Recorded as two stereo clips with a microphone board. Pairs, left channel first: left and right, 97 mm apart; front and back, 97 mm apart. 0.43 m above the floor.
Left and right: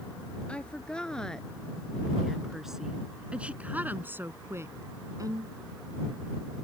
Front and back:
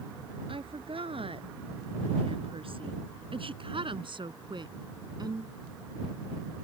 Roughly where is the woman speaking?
Behind.